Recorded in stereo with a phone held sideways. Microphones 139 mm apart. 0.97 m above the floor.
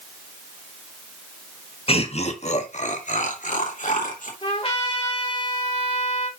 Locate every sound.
1.9 s laughter: 45° left (ahead or behind), 1.2 m; by 4.3 s 70° left (ahead or behind), 3 m
4.4 s a trumpet: 45° left (ahead or behind), 2.5 m